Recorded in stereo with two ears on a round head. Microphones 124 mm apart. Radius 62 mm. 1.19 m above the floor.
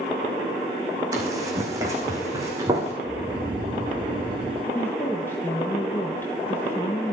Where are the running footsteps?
25° right (ahead or behind), 4 m.